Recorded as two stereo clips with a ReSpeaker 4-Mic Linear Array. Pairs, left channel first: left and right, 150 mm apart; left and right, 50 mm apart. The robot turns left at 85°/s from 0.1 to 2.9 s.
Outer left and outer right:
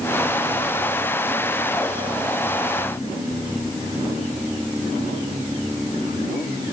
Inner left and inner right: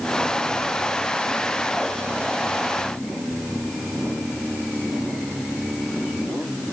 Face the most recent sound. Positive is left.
No sound to turn to.